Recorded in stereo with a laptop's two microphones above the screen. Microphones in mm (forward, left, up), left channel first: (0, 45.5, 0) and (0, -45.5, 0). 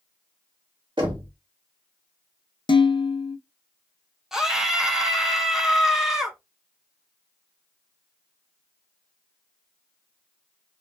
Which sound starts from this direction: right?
Knocking, at 1.0 s.